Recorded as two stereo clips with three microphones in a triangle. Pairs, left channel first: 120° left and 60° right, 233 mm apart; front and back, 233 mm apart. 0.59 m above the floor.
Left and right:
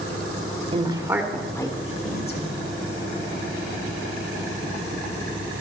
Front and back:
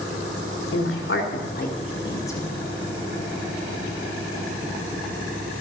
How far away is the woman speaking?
About 1.7 m.